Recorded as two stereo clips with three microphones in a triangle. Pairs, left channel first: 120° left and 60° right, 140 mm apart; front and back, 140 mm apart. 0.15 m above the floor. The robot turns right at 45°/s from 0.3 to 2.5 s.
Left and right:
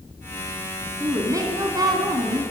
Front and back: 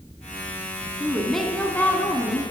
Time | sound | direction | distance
1.0 | a woman speaking | 100° right | 1.6 m